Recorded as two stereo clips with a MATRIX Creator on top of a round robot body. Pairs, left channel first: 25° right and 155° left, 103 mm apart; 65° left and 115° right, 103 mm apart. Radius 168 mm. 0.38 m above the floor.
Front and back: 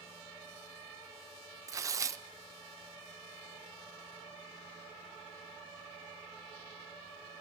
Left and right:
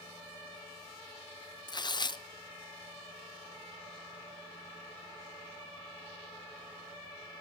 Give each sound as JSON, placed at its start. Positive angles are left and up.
{"t": 1.7, "sound": "tearing paper", "azimuth_deg": 105, "distance_m": 0.5}